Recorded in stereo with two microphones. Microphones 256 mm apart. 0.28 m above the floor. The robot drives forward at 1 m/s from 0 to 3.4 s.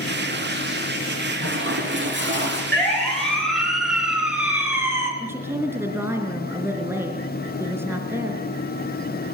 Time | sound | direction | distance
1.4 | a toilet flushing | 50° right (ahead or behind) | 9 m
2.7 | a siren | 5° left (ahead or behind) | 5.5 m
5.2 | a woman speaking | 10° right (ahead or behind) | 3.5 m